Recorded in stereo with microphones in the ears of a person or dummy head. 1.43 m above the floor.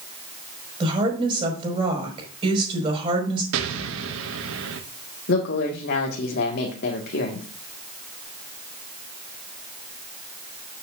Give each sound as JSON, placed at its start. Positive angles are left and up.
{"t": 0.8, "sound": "a woman speaking", "side_deg": -25, "distance_m": 5.0}
{"t": 3.5, "sound": "an explosion", "side_deg": -80, "distance_m": 1.2}
{"t": 5.3, "sound": "a woman speaking", "side_deg": 60, "distance_m": 1.7}